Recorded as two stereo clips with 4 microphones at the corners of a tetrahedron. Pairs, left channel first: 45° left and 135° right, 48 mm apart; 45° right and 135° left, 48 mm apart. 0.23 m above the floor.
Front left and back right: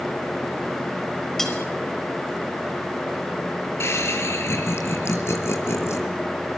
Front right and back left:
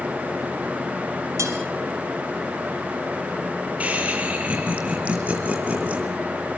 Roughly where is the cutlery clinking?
Behind left.